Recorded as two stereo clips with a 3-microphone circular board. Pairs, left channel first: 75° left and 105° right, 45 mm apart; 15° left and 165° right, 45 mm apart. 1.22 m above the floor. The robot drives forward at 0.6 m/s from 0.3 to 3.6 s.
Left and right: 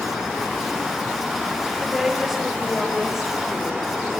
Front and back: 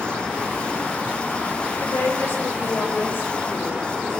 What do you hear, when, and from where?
1.8 s a woman speaking: 20° right, 6 m; by 4.2 s 25° right, 5 m